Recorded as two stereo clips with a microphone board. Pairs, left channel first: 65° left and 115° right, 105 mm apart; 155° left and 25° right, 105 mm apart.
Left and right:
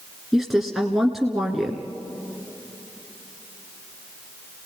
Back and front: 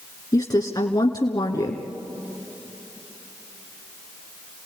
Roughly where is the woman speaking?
Behind.